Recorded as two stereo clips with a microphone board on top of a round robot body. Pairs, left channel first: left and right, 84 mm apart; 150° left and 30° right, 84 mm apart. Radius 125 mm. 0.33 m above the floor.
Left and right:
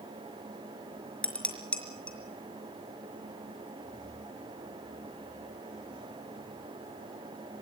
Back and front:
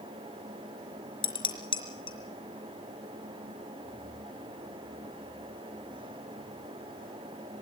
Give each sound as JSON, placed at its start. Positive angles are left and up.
{"t": 1.2, "sound": "dishes clattering", "azimuth_deg": 170, "distance_m": 4.5}